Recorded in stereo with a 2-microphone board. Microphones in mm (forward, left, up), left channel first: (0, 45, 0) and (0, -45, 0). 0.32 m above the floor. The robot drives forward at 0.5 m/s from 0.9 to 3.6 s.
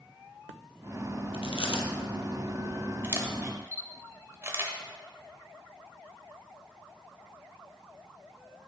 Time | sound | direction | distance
1.3 | chewing | 80° left | 1.3 m
3.0 | a camera shutter | 30° right (ahead or behind) | 1.0 m